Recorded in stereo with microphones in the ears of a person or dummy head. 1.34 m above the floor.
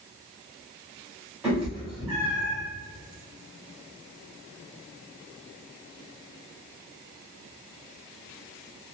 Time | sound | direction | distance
1.4 | a cat meowing | 5° right (ahead or behind) | 1.7 m